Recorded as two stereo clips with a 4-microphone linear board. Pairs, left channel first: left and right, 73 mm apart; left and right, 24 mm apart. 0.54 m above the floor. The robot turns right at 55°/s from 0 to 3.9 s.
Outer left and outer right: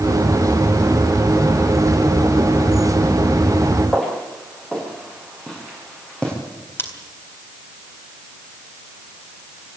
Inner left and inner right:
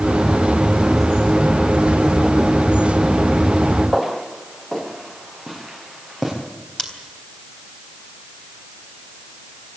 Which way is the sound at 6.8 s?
35° left (ahead or behind).